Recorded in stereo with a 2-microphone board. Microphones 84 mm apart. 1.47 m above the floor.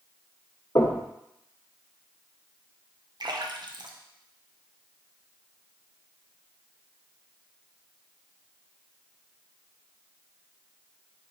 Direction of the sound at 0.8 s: 65° left (ahead or behind).